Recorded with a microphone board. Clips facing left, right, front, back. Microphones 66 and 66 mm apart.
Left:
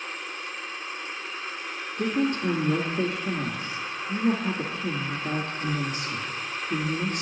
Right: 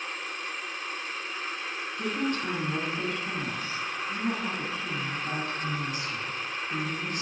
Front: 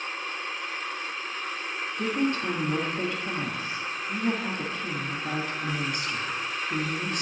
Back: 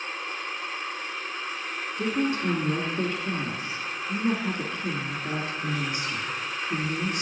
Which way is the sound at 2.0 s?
105° left.